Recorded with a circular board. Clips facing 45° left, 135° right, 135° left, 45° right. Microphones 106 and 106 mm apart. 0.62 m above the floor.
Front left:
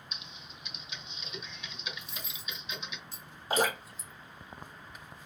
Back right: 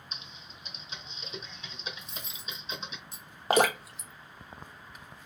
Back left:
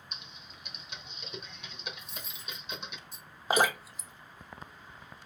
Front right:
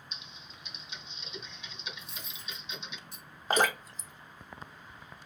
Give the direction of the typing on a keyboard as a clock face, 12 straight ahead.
6 o'clock.